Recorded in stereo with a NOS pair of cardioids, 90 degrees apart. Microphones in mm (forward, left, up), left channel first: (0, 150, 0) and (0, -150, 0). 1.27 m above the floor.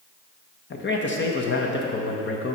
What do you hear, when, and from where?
0.7 s a man speaking: 40° left, 1.1 m